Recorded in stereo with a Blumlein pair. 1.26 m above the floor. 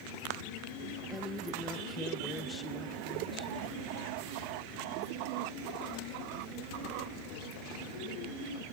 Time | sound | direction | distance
1.1 | a woman speaking | 10° left | 1.5 m